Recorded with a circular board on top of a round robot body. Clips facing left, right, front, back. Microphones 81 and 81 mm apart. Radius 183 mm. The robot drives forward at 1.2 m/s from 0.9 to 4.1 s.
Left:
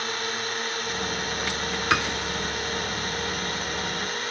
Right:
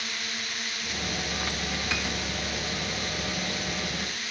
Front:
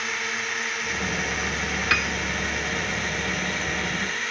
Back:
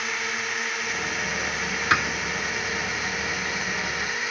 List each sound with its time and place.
0.0 s a drone: 95° left; by 4.3 s 100° left
1.9 s a piano: 120° left; by 2.1 s 125° left